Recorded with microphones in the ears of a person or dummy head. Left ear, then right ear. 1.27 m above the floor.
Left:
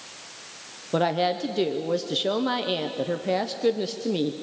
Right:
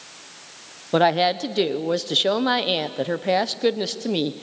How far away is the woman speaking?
About 0.6 m.